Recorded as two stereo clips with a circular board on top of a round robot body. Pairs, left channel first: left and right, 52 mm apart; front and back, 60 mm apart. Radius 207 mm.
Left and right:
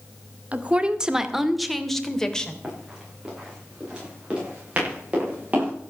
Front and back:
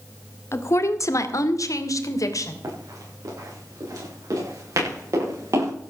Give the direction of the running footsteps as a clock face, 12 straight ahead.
6 o'clock.